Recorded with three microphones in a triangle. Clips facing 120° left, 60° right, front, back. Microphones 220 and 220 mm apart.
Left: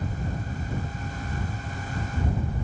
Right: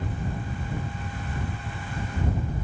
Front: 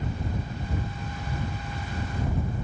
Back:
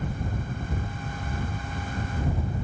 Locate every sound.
Only background noise.